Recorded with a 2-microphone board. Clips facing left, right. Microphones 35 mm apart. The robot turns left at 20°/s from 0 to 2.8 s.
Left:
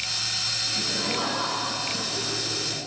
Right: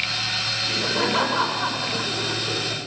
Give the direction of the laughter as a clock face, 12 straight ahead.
3 o'clock.